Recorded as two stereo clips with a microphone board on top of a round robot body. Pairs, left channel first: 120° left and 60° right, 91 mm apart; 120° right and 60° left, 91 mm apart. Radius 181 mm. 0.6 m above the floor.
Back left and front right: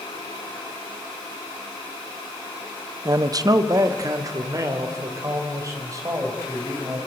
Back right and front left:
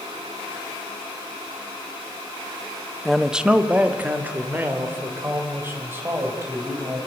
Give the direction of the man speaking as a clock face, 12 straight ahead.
1 o'clock.